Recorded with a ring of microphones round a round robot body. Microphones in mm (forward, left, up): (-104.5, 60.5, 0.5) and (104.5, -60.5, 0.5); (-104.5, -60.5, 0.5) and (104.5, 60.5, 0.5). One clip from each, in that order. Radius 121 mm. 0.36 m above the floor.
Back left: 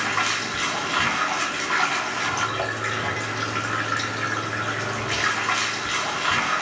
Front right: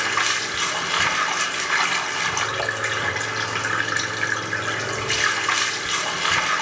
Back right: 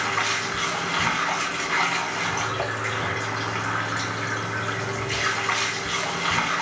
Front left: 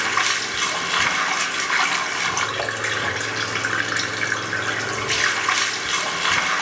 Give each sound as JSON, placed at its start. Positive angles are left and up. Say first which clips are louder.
{"t": 0.0, "sound": "running water", "louder": "front right 2 dB, front left 3 dB", "azimuth_deg": 20, "distance_m": 0.7}